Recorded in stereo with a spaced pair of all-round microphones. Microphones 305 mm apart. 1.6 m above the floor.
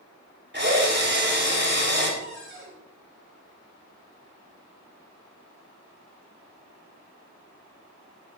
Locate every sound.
0.5 s a drill: 35° right (ahead or behind), 5 m
2.2 s a cupboard door: 40° right (ahead or behind), 6 m